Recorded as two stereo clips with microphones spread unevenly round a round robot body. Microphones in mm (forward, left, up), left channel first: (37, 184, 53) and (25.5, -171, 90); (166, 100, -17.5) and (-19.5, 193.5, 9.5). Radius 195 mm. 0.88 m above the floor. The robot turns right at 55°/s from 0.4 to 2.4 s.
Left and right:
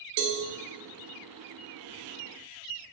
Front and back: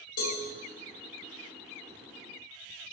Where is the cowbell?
60° right, 1.6 m.